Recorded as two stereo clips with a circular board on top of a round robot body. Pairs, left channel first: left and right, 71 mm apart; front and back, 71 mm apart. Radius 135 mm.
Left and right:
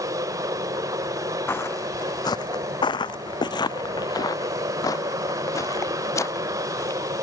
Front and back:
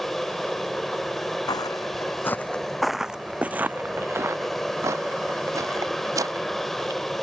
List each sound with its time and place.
0.0 s an aircraft: 85° right
1.5 s footsteps: 30° left; by 7.0 s 140° left